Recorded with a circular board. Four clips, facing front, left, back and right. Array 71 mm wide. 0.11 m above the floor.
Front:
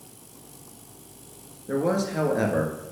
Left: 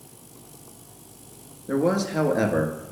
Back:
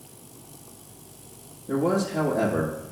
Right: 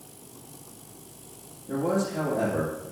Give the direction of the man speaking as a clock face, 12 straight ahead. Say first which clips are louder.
Left 4 dB, back 1 dB; 10 o'clock.